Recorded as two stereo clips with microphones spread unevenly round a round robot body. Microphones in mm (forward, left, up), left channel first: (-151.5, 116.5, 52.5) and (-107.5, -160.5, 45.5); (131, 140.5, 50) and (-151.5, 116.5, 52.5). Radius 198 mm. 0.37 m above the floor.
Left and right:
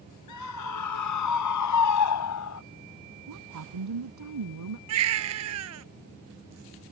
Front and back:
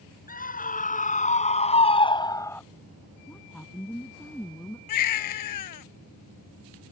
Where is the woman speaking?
80° right.